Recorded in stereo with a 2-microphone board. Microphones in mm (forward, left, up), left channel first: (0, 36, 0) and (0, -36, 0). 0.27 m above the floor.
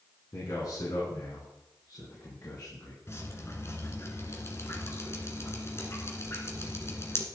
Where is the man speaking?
65° left (ahead or behind), 3.5 m; by 3.0 s 60° left (ahead or behind), 5.5 m.